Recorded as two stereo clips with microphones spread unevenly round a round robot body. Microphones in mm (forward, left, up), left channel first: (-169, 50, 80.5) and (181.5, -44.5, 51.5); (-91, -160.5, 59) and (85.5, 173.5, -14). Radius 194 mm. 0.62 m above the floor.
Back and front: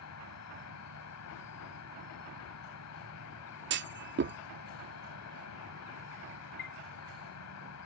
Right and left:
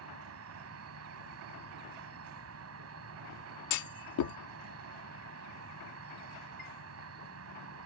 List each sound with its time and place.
0.0 s an insect: 115° left
3.7 s a clunk: 70° right
6.6 s a chime: 130° left